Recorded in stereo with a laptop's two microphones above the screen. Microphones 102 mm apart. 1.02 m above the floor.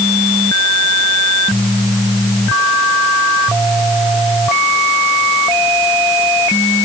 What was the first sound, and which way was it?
Only background noise.